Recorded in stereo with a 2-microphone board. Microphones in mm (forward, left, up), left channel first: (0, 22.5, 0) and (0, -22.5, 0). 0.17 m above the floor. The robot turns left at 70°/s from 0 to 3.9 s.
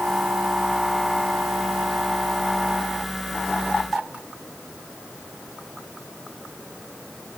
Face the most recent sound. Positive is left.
No sound to turn to.